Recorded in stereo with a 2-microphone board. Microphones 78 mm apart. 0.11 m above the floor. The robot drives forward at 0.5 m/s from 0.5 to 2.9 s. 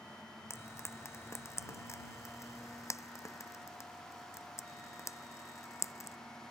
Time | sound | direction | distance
0.5 | frying | 35° left (ahead or behind) | ?